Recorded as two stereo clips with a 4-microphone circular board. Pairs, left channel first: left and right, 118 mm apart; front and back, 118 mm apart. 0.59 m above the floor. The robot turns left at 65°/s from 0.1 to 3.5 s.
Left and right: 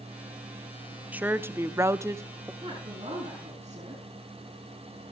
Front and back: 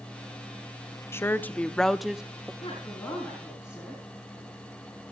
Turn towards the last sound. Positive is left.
turn(degrees=-95)